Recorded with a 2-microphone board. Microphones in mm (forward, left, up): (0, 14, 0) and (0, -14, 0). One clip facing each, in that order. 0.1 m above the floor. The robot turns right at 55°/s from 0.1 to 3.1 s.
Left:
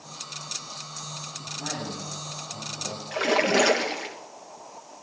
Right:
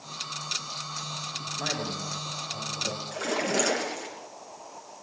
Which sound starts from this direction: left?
A splash, at 3.1 s.